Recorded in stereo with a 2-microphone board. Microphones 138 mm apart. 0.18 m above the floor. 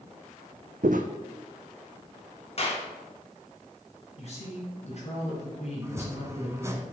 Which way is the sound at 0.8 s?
75° right (ahead or behind).